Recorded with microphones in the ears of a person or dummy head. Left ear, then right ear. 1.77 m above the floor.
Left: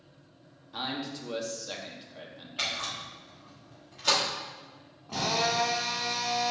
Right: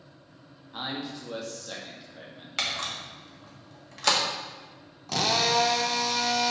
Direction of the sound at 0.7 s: 15° left (ahead or behind).